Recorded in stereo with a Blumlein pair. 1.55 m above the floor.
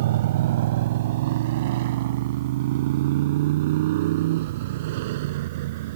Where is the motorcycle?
55° right.